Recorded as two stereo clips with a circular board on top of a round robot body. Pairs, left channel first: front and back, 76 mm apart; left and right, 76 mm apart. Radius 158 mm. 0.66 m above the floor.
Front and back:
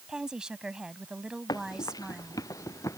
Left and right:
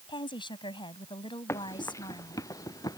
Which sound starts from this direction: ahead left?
Running footsteps, at 1.5 s.